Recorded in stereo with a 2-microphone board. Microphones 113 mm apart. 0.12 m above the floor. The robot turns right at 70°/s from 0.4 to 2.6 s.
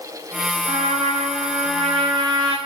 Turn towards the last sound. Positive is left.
turn(degrees=-20)